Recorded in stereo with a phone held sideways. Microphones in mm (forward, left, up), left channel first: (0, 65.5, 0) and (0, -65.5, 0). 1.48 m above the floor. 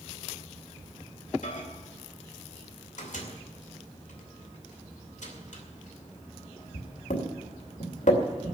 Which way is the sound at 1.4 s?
65° left (ahead or behind).